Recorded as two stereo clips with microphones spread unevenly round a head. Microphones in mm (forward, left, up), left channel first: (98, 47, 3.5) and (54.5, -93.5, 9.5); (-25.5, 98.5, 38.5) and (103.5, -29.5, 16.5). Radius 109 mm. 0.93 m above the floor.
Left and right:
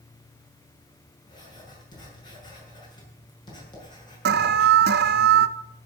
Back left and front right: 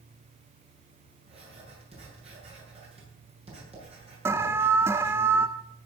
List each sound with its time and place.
1.3 s writing: 10° left, 8 m
4.2 s an alarm: 125° right, 0.6 m